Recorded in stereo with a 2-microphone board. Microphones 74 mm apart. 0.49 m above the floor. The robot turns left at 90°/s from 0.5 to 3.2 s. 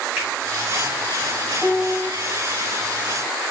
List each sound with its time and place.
0.2 s a finger snap: 20° right (ahead or behind), 3.5 m
1.6 s a piano: 35° right, 1.3 m; by 2.1 s 80° right, 1.3 m